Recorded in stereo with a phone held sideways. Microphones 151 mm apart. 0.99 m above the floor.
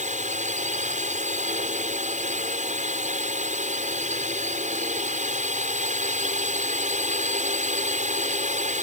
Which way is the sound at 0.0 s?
50° right (ahead or behind).